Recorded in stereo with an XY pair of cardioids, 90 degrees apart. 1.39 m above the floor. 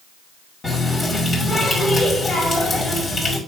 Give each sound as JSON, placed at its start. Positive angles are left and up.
{"t": 0.6, "sound": "a running tap", "azimuth_deg": 45, "distance_m": 5.0}